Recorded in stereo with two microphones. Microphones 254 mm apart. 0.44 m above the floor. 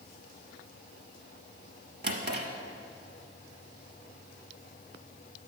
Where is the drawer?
45° right (ahead or behind), 0.9 m.